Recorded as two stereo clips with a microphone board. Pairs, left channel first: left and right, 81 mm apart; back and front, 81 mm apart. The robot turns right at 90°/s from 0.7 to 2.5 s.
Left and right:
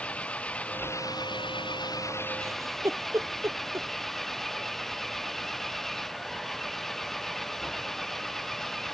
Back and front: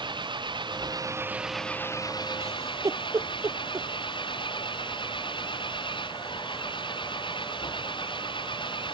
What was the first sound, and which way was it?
An engine running, 15° left.